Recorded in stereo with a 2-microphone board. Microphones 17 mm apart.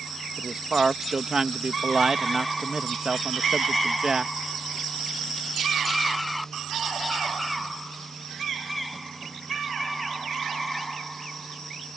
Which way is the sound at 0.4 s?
40° right (ahead or behind).